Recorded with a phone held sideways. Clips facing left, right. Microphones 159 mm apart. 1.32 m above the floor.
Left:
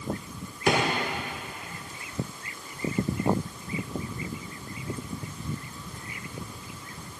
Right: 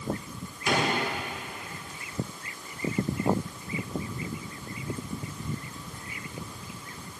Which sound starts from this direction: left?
A drawer, at 0.7 s.